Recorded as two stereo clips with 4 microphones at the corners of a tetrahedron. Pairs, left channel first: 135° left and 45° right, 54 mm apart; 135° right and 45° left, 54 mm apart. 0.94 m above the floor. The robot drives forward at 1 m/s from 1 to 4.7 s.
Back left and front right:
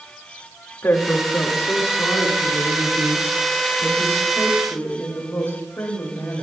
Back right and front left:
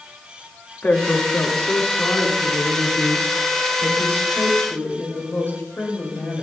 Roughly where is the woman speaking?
Behind.